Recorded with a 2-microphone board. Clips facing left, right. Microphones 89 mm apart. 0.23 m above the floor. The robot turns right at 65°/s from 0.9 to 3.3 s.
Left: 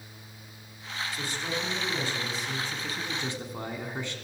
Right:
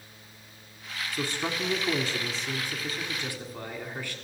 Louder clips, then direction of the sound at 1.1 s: Right 4 dB; 115° right.